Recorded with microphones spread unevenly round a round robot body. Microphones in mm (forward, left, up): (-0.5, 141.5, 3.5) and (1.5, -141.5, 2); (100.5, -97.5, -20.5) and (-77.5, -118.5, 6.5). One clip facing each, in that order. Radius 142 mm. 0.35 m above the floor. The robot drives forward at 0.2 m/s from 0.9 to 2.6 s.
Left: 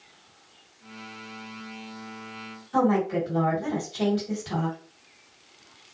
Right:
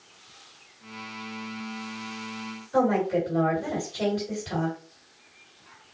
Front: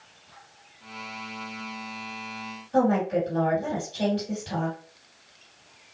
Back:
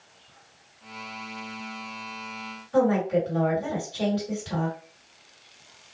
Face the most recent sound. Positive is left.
turn(degrees=155)